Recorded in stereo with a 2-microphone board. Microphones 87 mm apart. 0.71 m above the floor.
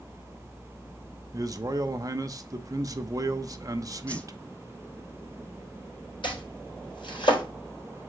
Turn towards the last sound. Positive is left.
turn(degrees=70)  # may be behind; listen again after turning